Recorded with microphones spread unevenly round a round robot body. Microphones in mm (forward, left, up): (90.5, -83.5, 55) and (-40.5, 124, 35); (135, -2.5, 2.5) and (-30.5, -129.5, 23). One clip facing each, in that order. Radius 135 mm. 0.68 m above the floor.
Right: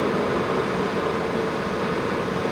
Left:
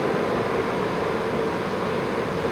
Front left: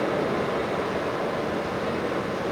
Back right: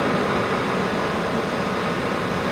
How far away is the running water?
About 4.5 m.